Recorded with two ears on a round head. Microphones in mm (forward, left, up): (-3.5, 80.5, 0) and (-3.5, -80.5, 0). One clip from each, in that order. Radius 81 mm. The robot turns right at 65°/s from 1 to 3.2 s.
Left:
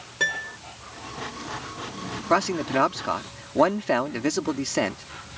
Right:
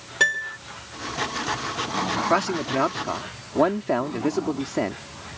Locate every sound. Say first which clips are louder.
0.2 s a piano: right 4 dB; 20° right (ahead or behind)
2.3 s a man speaking: left 4 dB; straight ahead; by 5.3 s 55° left